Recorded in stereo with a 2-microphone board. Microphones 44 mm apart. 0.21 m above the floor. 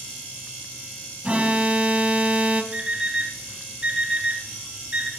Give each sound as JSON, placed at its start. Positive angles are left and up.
{"t": 1.2, "sound": "an alarm", "side_deg": -30, "distance_m": 1.0}
{"t": 2.7, "sound": "an alarm clock", "side_deg": -20, "distance_m": 2.5}